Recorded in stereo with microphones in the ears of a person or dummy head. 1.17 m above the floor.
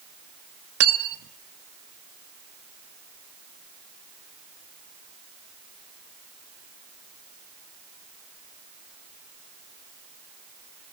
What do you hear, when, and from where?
0.8 s cutlery clinking: 75° right (ahead or behind), 1.4 m